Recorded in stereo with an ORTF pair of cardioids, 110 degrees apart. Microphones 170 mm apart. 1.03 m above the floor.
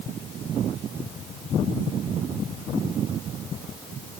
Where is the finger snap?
I don't hear a finger snap.